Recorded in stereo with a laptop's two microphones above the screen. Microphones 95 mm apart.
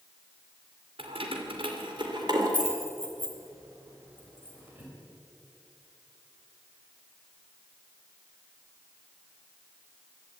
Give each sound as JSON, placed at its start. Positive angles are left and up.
{"t": 1.0, "sound": "keys jangling", "side_deg": -75, "distance_m": 2.5}